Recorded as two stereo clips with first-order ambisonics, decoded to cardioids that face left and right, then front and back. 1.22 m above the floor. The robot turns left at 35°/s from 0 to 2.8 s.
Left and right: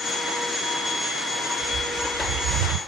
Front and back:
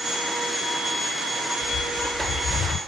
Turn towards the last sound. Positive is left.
turn(degrees=-75)